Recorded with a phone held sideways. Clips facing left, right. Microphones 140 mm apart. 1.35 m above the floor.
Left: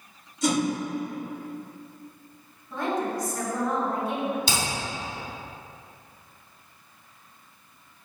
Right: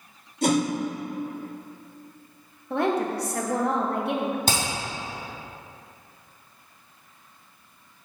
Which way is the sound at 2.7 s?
65° right (ahead or behind).